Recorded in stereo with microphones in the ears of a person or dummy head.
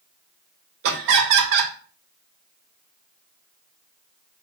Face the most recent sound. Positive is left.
turn(degrees=-65)  # may be behind; listen again after turning